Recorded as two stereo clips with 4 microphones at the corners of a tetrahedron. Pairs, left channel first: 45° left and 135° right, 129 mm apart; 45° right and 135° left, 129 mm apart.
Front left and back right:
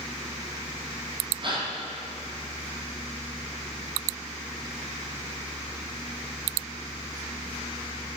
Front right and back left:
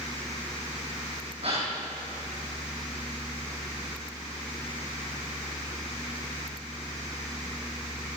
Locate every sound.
1.4 s a gasp: 175° left, 7 m